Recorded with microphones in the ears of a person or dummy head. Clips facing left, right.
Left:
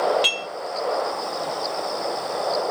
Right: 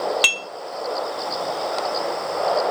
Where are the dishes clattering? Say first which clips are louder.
Left 2 dB; 70° right (ahead or behind), 0.8 m.